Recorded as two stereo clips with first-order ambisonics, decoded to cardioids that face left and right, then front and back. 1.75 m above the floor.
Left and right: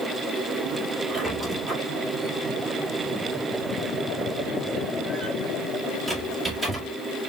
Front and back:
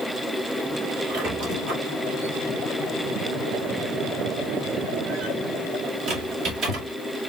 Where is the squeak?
175° right, 2 m.